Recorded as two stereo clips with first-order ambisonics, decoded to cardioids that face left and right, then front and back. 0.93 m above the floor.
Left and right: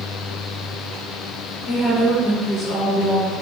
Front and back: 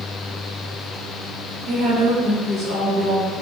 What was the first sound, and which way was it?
A woman speaking, 140° left.